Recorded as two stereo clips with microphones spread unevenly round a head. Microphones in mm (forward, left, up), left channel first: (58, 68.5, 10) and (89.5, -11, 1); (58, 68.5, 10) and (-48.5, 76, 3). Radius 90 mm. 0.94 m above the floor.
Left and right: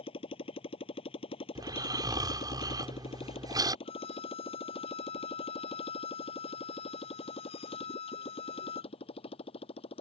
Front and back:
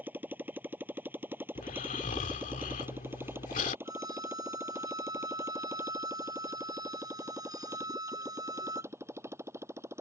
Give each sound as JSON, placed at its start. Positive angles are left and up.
{"t": 0.0, "sound": "a motorcycle", "azimuth_deg": 100}
{"t": 1.6, "sound": "snoring", "azimuth_deg": -25}
{"t": 3.9, "sound": "a violin", "azimuth_deg": 120}